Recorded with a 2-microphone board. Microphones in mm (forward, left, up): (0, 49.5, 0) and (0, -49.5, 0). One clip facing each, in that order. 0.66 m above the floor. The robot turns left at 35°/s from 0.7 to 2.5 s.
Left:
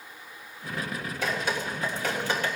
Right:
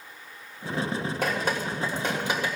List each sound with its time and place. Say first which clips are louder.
1.2 s dripping: even; 50° right (ahead or behind), 3 m; by 2.6 s 10° right (ahead or behind), 3 m